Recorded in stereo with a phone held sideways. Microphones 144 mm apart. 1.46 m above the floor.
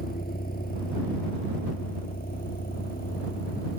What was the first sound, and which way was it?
A vehicle, 90° left.